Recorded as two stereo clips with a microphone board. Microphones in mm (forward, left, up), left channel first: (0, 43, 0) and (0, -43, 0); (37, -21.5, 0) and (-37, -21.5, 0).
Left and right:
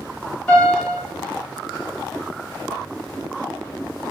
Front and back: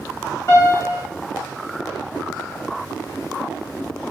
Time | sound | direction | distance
0.5 | a piano | 20° left | 1.4 m